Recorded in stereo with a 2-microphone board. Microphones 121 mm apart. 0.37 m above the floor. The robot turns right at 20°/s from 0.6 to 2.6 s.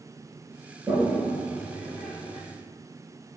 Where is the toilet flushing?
10° right (ahead or behind), 4 m; by 2.4 s 40° right (ahead or behind), 4 m.